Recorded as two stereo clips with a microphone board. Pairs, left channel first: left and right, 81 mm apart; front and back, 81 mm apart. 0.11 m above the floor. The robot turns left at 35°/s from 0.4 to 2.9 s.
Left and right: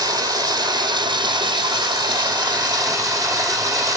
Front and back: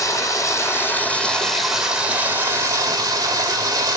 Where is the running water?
50° right, 4 m; by 4.0 s 135° right, 4 m.